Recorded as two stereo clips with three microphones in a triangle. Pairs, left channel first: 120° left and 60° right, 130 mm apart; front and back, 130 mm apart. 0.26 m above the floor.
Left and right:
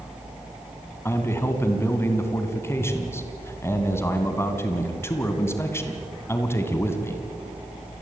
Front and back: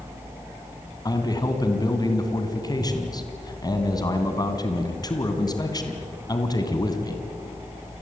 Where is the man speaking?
50° left, 2.5 m.